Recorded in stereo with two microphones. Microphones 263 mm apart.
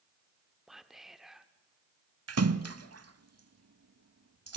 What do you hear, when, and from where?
0.7 s whispering: centre (ahead or behind), 0.8 m
2.3 s a splash: 75° right (ahead or behind), 0.6 m